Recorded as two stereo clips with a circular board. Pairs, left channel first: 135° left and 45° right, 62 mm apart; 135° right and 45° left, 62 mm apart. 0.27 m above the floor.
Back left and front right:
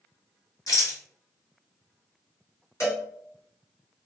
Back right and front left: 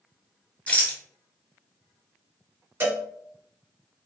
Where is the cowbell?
100° left, 1.5 m.